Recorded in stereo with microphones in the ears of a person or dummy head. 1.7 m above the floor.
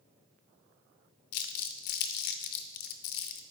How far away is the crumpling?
About 0.6 m.